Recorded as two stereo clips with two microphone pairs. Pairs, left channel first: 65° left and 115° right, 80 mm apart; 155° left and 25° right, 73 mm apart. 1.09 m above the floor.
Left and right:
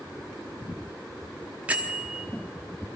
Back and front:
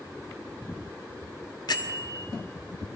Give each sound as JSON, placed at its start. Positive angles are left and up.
{"t": 1.7, "sound": "a bell", "azimuth_deg": 170, "distance_m": 1.1}